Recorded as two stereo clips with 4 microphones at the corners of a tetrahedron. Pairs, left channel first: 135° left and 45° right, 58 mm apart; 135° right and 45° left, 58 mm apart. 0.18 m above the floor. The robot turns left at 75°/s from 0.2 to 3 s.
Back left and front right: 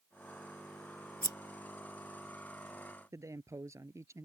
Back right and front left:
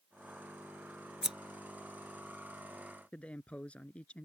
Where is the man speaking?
65° right.